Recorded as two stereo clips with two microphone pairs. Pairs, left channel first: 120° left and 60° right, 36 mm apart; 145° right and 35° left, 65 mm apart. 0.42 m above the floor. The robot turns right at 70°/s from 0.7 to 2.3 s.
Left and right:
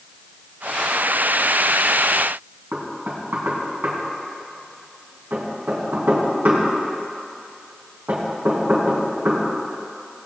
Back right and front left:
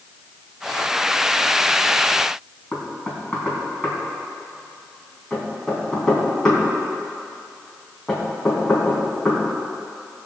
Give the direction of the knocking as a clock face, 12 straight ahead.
2 o'clock.